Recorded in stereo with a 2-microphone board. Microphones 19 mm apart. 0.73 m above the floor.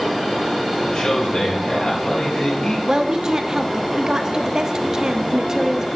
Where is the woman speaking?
35° right (ahead or behind), 0.8 m.